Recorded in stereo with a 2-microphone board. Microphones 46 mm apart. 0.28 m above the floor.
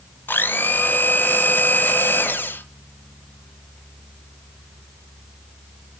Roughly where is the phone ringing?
No phone ringing in this recording.